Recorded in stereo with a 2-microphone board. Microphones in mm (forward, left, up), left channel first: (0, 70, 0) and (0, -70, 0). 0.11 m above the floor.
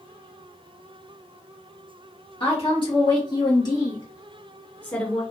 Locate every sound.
2.4 s a woman speaking: 40° left (ahead or behind), 2.5 m; by 5.2 s 5° left (ahead or behind), 1.6 m